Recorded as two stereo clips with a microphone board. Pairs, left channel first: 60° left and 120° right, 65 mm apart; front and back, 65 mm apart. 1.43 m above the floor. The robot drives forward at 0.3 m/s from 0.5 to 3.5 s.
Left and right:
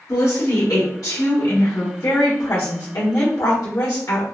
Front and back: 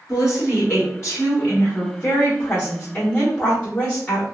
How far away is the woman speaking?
About 1.4 m.